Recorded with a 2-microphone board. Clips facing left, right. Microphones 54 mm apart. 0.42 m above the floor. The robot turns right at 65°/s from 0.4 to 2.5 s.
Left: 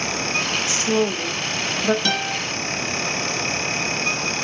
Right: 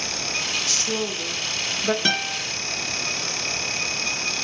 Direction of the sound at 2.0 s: 30° right (ahead or behind).